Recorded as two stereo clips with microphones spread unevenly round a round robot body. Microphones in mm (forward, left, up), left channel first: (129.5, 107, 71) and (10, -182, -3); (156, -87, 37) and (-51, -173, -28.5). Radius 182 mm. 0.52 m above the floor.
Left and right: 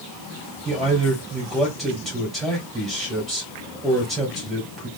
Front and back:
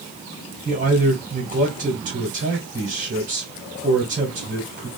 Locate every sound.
0.7 s a man speaking: 165° left, 2 m